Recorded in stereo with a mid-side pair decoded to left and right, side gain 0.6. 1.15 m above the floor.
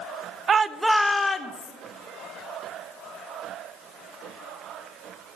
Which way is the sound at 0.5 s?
35° right.